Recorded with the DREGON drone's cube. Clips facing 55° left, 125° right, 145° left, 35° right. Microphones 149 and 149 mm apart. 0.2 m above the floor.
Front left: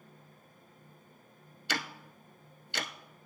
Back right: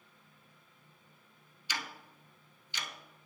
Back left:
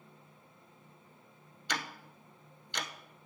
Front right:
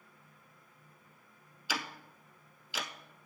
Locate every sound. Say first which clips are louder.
1.7 s ticking: front left 5 dB, even; 50° left, 0.6 m